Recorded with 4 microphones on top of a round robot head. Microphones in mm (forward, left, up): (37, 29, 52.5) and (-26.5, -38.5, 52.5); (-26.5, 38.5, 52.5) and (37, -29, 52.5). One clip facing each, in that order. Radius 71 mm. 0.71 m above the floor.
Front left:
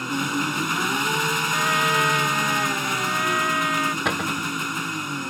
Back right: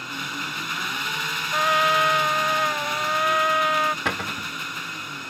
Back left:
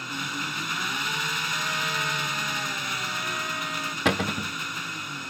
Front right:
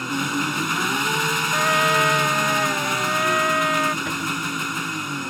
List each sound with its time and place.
0.0 s an engine running: straight ahead
1.5 s a trumpet: 75° right
4.0 s a cupboard door: 130° left